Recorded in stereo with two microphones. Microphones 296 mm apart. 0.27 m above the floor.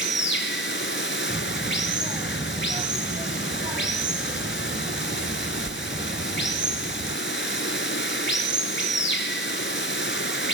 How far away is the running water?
About 1.3 m.